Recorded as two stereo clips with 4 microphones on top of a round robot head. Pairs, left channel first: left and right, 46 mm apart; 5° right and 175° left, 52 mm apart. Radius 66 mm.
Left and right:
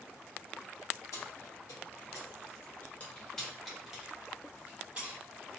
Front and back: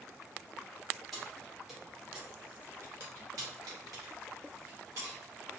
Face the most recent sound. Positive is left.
turn(degrees=-145)